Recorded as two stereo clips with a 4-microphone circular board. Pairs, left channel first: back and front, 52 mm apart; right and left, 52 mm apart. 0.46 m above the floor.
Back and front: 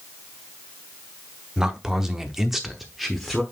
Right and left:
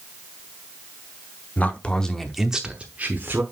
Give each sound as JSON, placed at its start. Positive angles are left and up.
{"t": 1.6, "sound": "a man speaking", "azimuth_deg": -70, "distance_m": 1.0}